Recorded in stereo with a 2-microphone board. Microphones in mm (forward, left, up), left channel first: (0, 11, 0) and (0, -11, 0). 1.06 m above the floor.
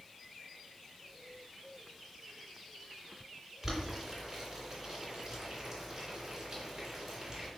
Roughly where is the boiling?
Right.